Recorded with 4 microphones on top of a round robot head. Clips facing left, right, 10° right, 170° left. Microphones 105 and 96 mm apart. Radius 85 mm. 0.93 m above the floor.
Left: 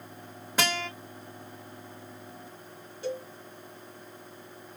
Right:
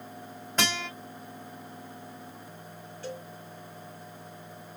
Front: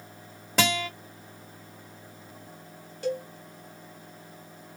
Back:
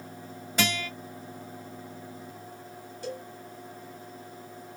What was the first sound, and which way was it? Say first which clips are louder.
A guitar: left 1 dB, front 3 dB; 5° left.